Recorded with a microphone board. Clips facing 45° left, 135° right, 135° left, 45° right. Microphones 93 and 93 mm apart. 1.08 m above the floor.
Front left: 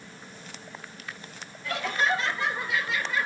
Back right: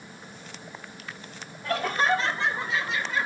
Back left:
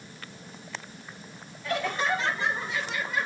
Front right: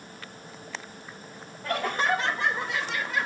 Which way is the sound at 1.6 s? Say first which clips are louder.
Back right 2 dB, front right 1 dB; 90° right.